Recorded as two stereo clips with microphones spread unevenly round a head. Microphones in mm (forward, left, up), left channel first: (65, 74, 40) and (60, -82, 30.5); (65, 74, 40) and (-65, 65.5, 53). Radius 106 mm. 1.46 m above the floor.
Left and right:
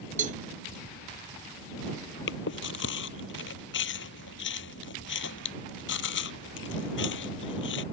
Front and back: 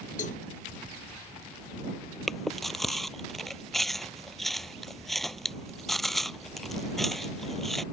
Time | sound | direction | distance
0.2 | a cowbell | 50° right | ?
2.3 | chewing | 95° left | ?